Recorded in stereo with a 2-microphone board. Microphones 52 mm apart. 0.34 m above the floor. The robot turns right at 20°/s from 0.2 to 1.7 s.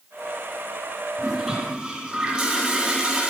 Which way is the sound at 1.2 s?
15° right (ahead or behind).